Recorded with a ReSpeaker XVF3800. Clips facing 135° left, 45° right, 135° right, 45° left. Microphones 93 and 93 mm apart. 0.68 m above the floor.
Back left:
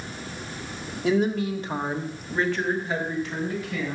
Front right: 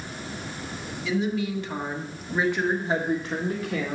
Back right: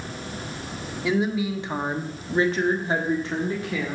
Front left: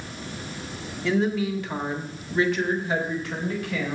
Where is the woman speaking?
150° left, 1.7 m; by 4.0 s 70° right, 2.5 m.